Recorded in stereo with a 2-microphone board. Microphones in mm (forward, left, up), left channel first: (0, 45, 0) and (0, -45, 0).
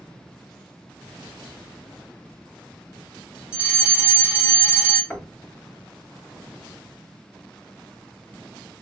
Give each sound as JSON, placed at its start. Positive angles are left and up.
{"t": 3.5, "sound": "a fire alarm", "side_deg": -10, "distance_m": 2.0}
{"t": 5.1, "sound": "knocking", "side_deg": 5, "distance_m": 0.9}